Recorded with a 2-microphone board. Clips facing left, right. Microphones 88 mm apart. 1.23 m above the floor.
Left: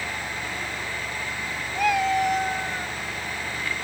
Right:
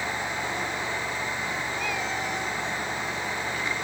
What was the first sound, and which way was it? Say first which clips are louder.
A cat meowing: left 8 dB; 80° left.